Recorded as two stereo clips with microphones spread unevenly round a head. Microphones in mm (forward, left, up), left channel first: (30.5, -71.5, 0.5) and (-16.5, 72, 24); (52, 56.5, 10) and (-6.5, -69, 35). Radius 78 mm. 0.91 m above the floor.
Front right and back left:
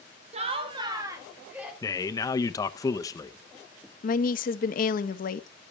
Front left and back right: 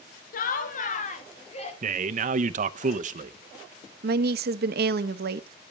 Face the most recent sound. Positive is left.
turn(degrees=-100)